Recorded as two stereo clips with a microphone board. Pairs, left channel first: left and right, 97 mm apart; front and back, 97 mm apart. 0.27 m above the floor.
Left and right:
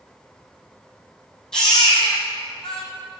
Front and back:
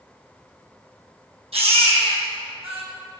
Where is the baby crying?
175° left, 3.5 m.